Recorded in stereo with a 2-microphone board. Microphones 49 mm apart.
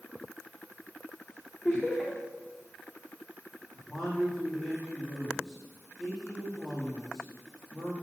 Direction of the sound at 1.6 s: 15° left (ahead or behind).